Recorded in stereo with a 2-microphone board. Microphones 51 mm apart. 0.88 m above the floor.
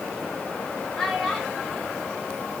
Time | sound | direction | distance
1.0 | a child speaking | 5° left (ahead or behind) | 2.5 m